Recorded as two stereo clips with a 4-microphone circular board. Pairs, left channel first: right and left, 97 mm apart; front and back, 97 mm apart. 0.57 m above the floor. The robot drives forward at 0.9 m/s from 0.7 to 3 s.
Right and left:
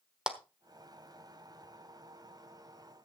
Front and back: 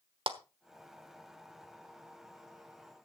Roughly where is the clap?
Behind.